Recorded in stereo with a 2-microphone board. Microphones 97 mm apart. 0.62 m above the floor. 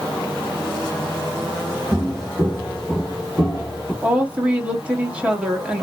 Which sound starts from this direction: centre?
A woman speaking, at 4.0 s.